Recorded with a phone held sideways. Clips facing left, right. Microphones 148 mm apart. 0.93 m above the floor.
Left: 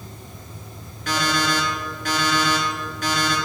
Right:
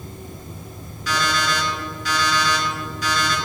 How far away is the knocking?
I don't hear knocking.